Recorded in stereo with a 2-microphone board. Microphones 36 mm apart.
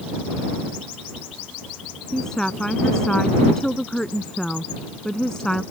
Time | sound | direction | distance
2.1 | a woman speaking | 20° left (ahead or behind) | ?